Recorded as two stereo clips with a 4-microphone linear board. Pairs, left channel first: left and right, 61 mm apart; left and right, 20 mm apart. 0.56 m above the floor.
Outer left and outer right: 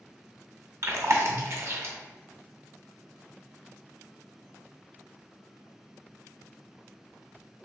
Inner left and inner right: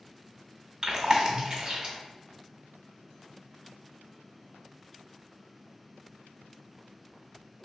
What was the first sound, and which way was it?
Chewing, 50° right (ahead or behind).